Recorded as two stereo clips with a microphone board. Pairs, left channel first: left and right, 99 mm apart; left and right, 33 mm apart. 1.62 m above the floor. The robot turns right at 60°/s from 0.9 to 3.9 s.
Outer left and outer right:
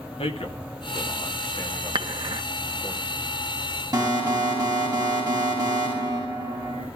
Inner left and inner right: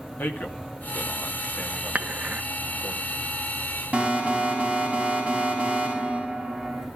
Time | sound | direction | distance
0.2 | a man speaking | 90° left | 3 m
1.9 | dishes clattering | 60° right (ahead or behind) | 1.5 m
3.9 | an alarm | 40° right (ahead or behind) | 8 m